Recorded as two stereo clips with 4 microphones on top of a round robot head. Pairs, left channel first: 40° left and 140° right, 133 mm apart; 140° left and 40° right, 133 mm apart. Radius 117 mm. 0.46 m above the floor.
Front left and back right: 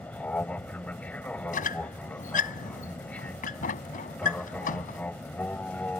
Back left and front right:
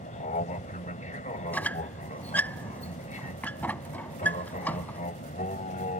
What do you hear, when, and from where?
0.0 s an aircraft: 120° left
1.5 s a squeak: 60° left